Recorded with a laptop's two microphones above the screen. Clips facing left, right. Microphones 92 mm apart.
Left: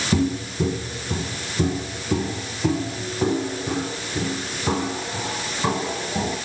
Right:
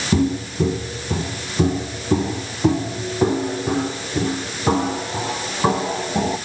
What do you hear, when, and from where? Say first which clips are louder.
0.1 s footsteps: right 3 dB; 10° right (ahead or behind), 1.6 m; by 6.4 s 25° right (ahead or behind), 6 m